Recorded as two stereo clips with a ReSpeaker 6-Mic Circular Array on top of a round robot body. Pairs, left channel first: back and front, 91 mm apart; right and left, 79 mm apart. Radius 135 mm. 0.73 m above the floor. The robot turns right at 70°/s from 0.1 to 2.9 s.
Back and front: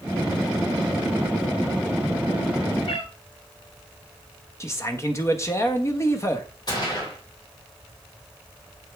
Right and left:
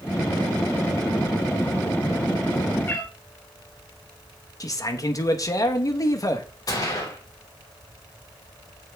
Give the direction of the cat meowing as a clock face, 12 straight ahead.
5 o'clock.